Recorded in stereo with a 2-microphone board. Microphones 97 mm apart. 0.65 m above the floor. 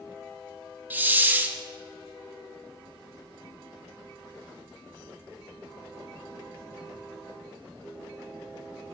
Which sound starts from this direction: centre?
A hiss, at 0.9 s.